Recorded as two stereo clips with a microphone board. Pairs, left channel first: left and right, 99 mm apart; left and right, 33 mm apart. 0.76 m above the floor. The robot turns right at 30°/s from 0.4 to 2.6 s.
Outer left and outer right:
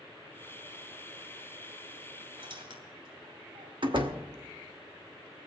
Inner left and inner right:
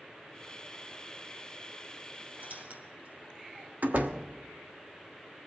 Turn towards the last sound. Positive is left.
turn(degrees=-55)  # may be behind; listen again after turning